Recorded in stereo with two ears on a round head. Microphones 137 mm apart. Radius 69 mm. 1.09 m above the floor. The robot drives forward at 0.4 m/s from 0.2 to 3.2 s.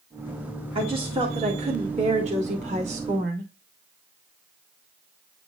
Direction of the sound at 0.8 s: 35° right (ahead or behind).